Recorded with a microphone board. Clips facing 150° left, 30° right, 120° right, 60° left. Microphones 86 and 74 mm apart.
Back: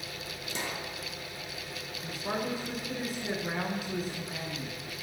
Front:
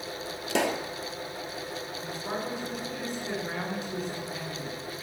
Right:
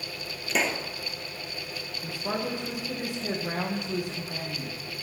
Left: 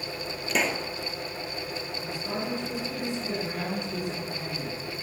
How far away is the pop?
About 0.8 m.